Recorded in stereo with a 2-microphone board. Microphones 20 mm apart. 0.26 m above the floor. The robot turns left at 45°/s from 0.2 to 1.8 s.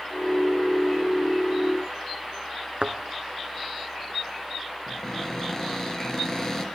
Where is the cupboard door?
30° left (ahead or behind), 5 m.